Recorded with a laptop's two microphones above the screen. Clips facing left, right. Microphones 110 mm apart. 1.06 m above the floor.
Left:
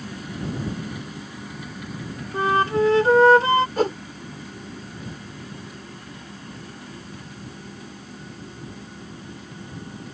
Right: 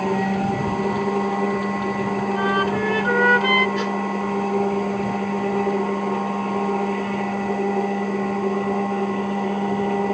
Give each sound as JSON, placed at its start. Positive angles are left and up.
{"t": 0.0, "sound": "a machine running", "side_deg": -85}
{"t": 2.3, "sound": "a flute", "side_deg": 30}
{"t": 3.8, "sound": "a whoosh", "side_deg": 40}